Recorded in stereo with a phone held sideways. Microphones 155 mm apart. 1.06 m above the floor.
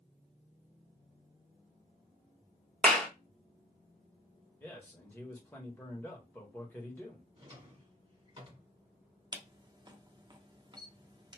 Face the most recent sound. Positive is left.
turn(degrees=-30)  # may be behind; listen again after turning